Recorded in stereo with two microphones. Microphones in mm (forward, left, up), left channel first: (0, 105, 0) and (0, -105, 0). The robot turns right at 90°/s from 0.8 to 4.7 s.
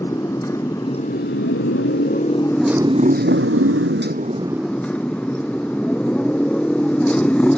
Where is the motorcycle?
15° left; by 7.6 s 5° left.